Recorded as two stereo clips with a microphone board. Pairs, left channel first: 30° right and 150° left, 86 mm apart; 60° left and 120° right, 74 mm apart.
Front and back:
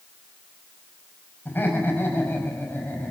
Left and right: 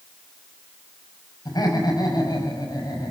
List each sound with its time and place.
1.4 s laughter: 35° left, 5.5 m